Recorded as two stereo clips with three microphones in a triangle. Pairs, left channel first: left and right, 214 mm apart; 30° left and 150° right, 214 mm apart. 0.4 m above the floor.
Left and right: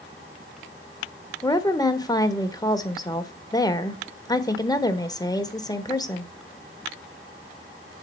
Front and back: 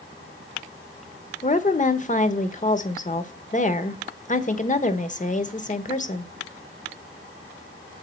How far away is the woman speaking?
About 1.1 m.